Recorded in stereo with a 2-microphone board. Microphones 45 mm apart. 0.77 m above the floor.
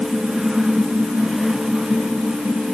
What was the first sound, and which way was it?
Only background noise.